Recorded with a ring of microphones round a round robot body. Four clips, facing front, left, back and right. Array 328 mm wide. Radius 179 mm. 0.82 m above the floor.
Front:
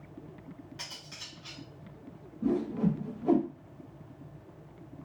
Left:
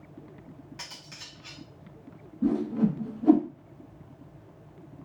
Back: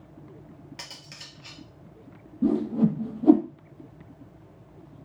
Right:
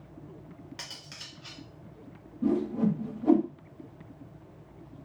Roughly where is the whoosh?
Behind.